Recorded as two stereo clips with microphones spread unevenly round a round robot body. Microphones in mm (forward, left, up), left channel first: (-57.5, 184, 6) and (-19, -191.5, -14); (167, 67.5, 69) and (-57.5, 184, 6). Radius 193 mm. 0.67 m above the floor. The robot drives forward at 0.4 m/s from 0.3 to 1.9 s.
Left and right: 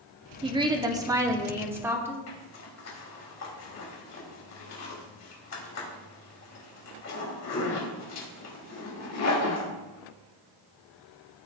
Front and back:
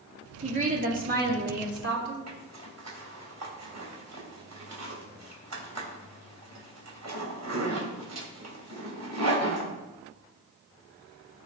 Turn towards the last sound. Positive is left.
turn(degrees=145)